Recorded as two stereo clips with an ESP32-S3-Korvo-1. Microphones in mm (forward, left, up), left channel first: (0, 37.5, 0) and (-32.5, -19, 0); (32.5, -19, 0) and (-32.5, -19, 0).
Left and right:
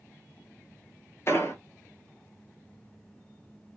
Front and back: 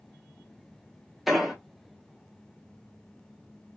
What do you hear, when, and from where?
1.3 s an explosion: 95° left, 0.7 m